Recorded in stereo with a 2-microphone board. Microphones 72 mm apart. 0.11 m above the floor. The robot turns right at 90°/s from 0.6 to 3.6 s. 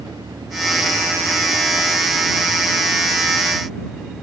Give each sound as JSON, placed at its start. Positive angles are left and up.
{"t": 0.0, "sound": "an engine running", "azimuth_deg": -90}